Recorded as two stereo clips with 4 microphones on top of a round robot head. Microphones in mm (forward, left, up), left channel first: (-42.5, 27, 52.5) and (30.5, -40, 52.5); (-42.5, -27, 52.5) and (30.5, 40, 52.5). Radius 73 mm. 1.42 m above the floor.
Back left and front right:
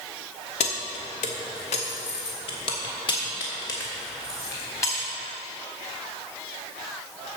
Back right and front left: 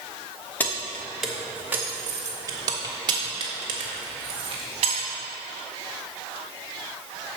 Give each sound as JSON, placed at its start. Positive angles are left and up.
{"t": 0.6, "sound": "keys jangling", "azimuth_deg": 150, "distance_m": 1.0}